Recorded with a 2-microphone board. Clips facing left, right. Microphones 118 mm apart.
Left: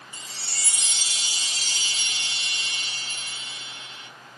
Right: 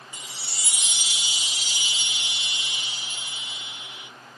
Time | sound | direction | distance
0.1 | a chime | 15° right (ahead or behind) | 0.7 m